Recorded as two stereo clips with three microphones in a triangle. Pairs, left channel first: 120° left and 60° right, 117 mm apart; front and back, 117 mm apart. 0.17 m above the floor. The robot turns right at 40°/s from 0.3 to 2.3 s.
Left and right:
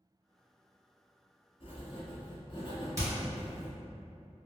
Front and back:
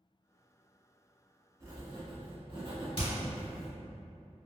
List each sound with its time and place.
1.6 s writing: 120° left, 1.2 m; by 3.7 s 145° left, 1.2 m
3.0 s hammering: 5° right, 1.9 m